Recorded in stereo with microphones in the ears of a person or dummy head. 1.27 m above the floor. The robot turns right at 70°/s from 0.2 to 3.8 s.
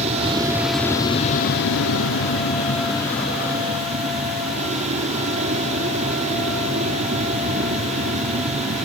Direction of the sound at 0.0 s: 35° right.